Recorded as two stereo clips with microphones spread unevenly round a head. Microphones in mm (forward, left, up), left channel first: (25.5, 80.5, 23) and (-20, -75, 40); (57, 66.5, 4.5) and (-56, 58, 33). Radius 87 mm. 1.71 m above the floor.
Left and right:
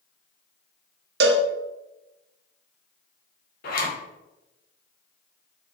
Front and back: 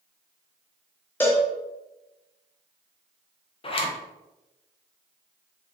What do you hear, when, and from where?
1.2 s a cowbell: 75° right, 0.6 m
3.6 s a zipper: 45° left, 1.0 m